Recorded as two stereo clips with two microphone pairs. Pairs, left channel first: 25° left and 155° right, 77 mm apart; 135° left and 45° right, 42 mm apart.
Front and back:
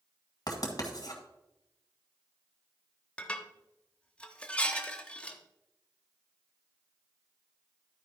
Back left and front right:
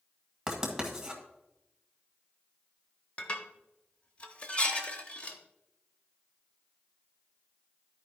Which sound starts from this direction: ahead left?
Writing, at 0.5 s.